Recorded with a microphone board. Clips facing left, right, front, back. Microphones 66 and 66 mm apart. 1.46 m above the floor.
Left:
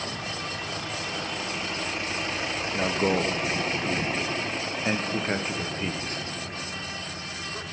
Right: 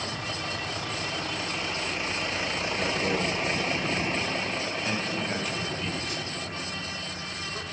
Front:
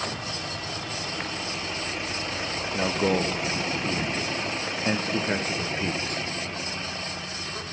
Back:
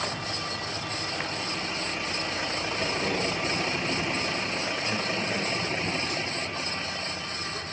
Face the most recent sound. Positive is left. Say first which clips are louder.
# left 5 dB, front 7 dB
turn(degrees=35)